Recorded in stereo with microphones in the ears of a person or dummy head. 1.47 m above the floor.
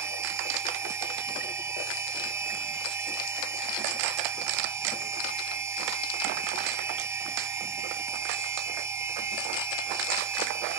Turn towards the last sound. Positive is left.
turn(degrees=-25)  # may be behind; listen again after turning